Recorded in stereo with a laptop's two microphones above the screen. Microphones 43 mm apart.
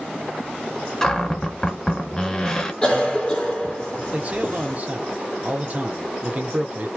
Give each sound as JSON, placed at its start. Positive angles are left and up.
{"t": 1.0, "sound": "a cupboard door", "side_deg": 20, "distance_m": 0.6}
{"t": 2.8, "sound": "a cough", "side_deg": 10, "distance_m": 1.3}
{"t": 4.1, "sound": "a man speaking", "side_deg": -40, "distance_m": 1.0}